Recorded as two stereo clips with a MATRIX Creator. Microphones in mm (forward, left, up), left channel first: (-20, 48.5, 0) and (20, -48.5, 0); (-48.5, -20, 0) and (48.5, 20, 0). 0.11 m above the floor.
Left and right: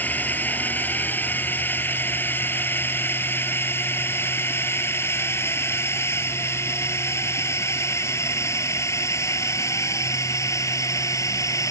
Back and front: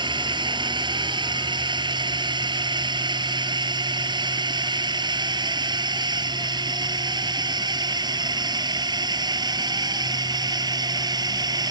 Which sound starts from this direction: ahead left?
A drone, at 0.0 s.